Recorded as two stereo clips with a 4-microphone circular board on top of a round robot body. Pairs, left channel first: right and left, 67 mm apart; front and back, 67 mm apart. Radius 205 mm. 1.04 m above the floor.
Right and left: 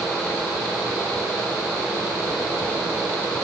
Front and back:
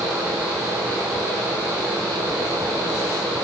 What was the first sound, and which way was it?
Only background noise.